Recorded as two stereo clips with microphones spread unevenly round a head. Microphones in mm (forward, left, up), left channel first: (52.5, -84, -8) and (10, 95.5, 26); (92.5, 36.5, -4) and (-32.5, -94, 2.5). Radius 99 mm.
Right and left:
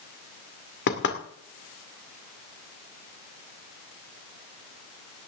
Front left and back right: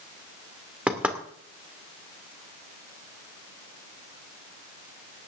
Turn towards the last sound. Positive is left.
turn(degrees=-50)